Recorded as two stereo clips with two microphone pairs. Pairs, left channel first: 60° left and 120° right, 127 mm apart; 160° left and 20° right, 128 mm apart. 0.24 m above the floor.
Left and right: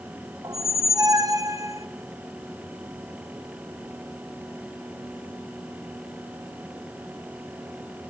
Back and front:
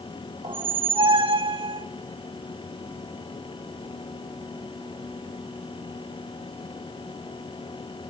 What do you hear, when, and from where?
0.4 s a squeak: 65° right, 0.9 m